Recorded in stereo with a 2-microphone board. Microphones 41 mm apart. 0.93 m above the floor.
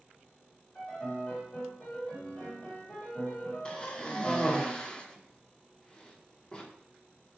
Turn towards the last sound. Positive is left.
turn(degrees=20)  # may be behind; listen again after turning